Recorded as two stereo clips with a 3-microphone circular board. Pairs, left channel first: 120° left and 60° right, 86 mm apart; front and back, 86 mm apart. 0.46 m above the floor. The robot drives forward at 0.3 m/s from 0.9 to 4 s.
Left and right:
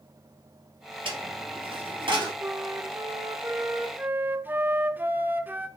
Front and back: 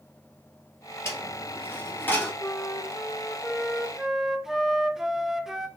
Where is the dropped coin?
60° right, 1.9 m; by 2.3 s 70° right, 1.8 m.